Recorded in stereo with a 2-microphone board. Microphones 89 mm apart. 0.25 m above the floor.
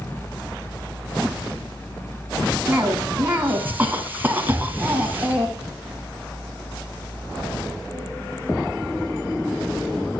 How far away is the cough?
About 2.5 m.